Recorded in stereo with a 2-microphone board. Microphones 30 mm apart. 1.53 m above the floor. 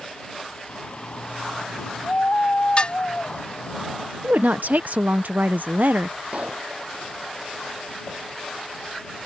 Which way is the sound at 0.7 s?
45° left (ahead or behind).